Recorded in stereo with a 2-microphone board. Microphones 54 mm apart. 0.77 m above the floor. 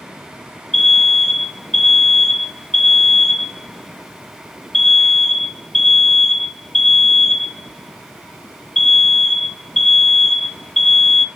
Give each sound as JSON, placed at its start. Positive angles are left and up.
{"t": 0.7, "sound": "an alarm", "side_deg": 5, "distance_m": 0.7}